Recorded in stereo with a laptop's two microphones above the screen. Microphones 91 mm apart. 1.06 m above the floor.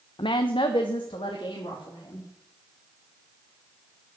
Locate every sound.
0.2 s a woman speaking: 60° left (ahead or behind), 0.6 m; by 2.3 s 65° left (ahead or behind), 2.5 m